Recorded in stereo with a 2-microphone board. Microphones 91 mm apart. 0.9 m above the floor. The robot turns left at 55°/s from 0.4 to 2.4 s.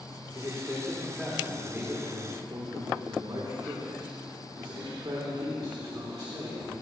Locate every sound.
0.3 s a man speaking: 50° left, 2.5 m; by 6.8 s 60° right, 2.5 m